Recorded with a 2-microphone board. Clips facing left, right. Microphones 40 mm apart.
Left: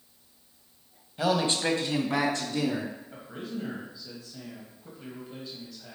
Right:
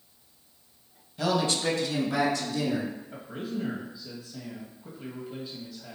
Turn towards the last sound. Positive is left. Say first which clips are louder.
# right 3 dB
turn(degrees=-5)  # may be behind; listen again after turning